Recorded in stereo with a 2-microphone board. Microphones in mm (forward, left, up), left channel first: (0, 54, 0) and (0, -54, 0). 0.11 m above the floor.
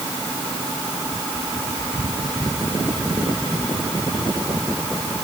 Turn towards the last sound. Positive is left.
No sound to turn to.